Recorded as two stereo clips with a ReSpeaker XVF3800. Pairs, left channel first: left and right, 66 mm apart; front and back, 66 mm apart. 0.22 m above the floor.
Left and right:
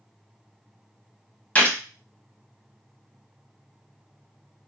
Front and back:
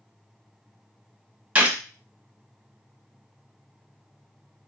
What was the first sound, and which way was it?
A gunshot, 130° left.